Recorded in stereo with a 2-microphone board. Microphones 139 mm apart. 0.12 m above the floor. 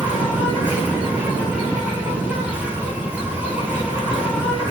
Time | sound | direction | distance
0.0 | an insect | 10° right (ahead or behind) | 6.5 m